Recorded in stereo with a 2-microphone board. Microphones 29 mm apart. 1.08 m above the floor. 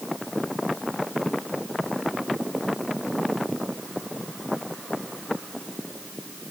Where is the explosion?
No explosion in this recording.